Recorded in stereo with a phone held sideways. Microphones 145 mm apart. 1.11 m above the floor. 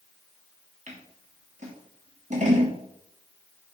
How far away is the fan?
I don't hear a fan.